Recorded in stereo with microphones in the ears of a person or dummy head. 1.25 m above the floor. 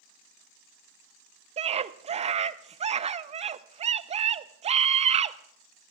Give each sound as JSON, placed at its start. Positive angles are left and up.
{"t": 1.6, "sound": "a scream", "side_deg": -35, "distance_m": 0.5}